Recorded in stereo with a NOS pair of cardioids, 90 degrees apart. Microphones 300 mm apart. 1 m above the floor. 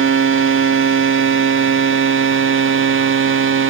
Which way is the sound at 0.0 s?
45° right.